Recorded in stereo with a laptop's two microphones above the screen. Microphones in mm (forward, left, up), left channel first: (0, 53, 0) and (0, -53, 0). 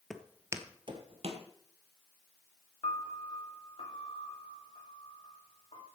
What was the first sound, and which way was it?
Footsteps, 5° left (ahead or behind).